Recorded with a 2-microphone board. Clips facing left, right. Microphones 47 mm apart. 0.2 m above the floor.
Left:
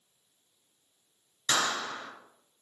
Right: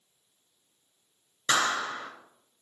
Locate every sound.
1.5 s a clap: 45° right (ahead or behind), 2.5 m